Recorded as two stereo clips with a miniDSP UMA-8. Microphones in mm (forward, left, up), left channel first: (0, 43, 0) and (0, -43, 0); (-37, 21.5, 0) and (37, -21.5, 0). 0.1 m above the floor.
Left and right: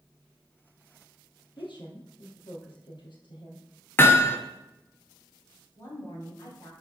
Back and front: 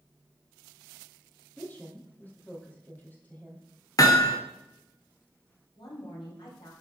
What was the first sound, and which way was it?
A woman speaking, 85° left.